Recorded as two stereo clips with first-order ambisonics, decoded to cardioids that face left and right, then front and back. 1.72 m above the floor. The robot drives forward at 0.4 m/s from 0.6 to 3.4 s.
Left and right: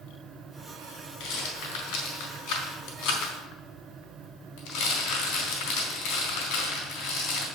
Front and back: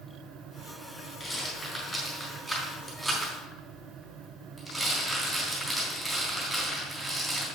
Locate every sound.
1.2 s a rattle: 75° left, 3.5 m; by 7.5 s 90° left, 3.5 m